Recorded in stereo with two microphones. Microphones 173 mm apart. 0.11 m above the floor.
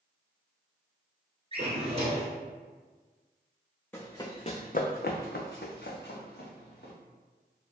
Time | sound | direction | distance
1.5 | a drawer | 35° right (ahead or behind) | 1.1 m
3.9 | running footsteps | 15° left (ahead or behind) | 0.6 m